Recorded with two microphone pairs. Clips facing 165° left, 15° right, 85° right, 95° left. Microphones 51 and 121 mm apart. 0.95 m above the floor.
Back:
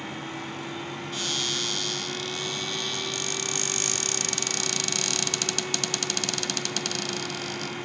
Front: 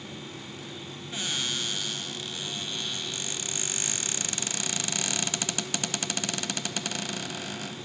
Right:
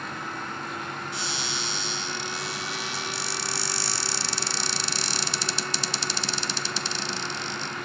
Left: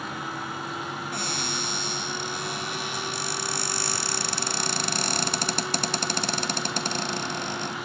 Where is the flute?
No flute in this recording.